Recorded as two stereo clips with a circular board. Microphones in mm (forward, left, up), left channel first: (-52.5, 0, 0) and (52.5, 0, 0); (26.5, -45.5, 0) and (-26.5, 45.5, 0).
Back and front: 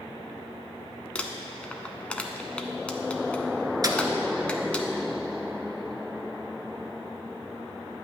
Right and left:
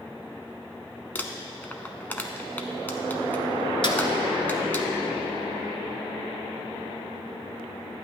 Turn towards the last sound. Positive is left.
turn(degrees=-45)